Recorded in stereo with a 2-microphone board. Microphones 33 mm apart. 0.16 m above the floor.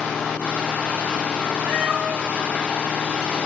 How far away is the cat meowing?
About 1.4 m.